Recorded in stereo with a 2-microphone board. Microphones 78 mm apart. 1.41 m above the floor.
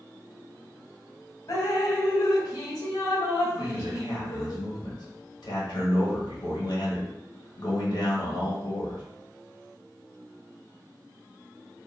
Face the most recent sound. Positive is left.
turn(degrees=65)  # may be behind; listen again after turning